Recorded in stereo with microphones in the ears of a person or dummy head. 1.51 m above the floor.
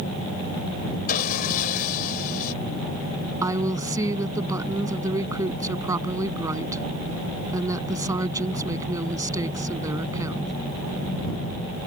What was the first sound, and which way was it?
Sawing, 55° left (ahead or behind).